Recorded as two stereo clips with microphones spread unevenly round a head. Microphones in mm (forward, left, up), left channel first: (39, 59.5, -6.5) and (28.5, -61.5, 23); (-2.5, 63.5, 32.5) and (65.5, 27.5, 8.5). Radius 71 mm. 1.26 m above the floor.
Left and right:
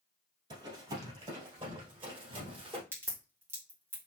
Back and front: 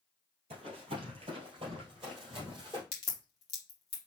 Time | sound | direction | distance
0.5 | running footsteps | 65° right | 2 m
2.9 | a crack | 175° right | 1.2 m